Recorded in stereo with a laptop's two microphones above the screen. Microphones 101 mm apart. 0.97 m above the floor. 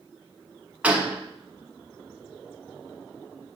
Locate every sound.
0.8 s a gunshot: 15° right (ahead or behind), 0.9 m